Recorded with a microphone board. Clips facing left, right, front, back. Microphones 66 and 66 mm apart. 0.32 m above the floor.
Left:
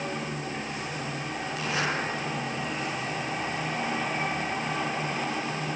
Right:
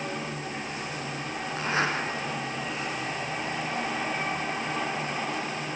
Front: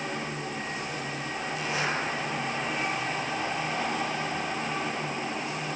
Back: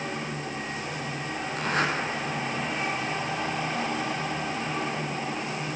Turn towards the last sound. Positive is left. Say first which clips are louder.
# right 3 dB, back 4 dB
turn(degrees=-145)